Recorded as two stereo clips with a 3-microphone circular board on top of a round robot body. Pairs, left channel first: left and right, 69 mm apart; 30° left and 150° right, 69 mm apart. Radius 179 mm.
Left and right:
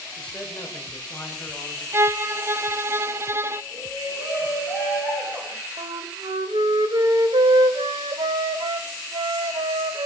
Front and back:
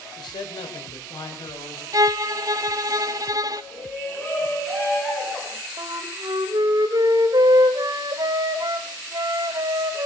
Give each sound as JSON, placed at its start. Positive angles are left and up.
{"t": 0.2, "sound": "a man speaking", "azimuth_deg": 15, "distance_m": 3.5}
{"t": 1.9, "sound": "a violin", "azimuth_deg": -135, "distance_m": 0.9}
{"t": 3.7, "sound": "a shout", "azimuth_deg": -35, "distance_m": 8.5}
{"t": 5.8, "sound": "a flute", "azimuth_deg": -115, "distance_m": 1.1}